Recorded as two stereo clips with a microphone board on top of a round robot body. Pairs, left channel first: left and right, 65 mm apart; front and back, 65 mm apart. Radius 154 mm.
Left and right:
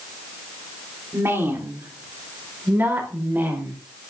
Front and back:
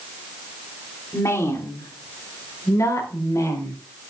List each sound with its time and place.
1.1 s a woman speaking: 40° right, 3 m; by 3.8 s 30° right, 4.5 m